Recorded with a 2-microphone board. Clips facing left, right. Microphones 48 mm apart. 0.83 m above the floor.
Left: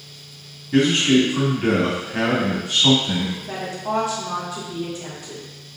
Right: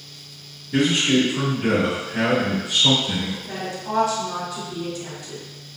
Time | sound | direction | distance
0.7 | a man speaking | 45° left (ahead or behind) | 1.3 m
3.5 | a woman speaking | 30° left (ahead or behind) | 0.8 m